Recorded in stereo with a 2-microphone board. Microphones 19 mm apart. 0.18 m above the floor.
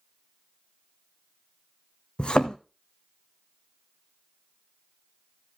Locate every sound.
2.2 s a thud: 60° left (ahead or behind), 1.0 m